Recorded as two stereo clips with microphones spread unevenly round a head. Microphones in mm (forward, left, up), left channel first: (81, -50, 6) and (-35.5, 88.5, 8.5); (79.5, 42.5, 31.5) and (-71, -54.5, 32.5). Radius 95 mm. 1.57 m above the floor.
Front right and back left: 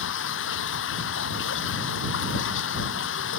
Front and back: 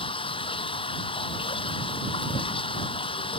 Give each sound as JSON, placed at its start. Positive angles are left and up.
{"t": 0.0, "sound": "running water", "azimuth_deg": -30}